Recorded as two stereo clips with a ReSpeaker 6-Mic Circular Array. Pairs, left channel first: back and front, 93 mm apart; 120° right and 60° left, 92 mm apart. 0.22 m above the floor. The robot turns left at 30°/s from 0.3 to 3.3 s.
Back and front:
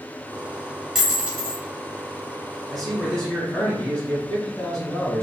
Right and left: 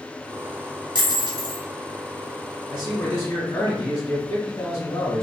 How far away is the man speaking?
About 1.5 m.